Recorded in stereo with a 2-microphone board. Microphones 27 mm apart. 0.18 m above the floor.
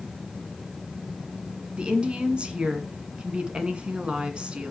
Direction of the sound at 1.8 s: 40° right (ahead or behind).